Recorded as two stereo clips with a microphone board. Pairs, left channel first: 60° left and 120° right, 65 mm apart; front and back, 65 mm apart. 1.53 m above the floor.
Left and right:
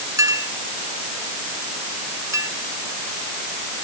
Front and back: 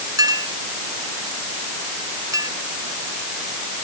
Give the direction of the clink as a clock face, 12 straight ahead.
5 o'clock.